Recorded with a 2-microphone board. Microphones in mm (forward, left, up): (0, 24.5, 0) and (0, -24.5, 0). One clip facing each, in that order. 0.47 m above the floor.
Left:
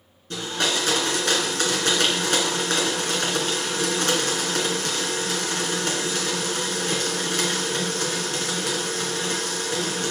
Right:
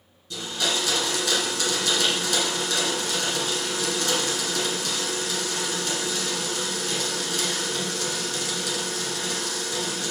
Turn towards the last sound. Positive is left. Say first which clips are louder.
# left 2 dB
turn(degrees=45)  # may be behind; listen again after turning